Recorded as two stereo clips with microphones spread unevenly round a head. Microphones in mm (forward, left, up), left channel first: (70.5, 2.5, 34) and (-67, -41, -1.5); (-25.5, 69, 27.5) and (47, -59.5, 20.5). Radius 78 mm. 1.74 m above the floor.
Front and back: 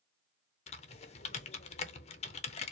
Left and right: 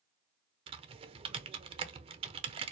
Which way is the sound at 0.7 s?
10° right.